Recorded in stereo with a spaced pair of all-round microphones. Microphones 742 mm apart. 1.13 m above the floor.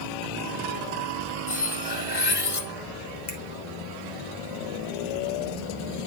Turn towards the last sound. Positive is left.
turn(degrees=70)  # may be behind; listen again after turning